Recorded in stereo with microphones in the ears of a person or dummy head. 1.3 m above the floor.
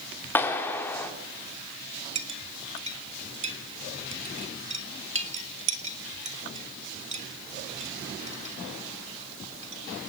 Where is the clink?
35° right (ahead or behind), 1.6 m.